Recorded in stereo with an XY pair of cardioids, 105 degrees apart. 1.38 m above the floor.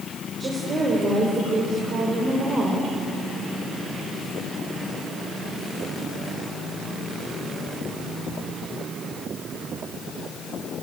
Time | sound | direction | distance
0.4 | a woman speaking | 40° right | 4.5 m